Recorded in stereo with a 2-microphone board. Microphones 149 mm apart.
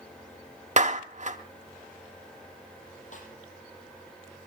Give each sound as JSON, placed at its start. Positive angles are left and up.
{"t": 0.8, "sound": "a clap", "side_deg": -50, "distance_m": 1.3}
{"t": 3.1, "sound": "a snare drum", "side_deg": 55, "distance_m": 6.0}